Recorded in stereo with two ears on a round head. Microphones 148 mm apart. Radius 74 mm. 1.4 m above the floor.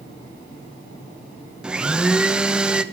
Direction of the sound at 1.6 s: 5° right (ahead or behind).